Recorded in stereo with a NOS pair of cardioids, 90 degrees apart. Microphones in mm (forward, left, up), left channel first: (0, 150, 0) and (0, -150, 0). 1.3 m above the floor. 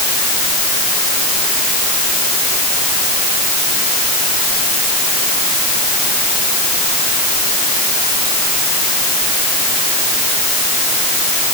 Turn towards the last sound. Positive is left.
No sound to turn to.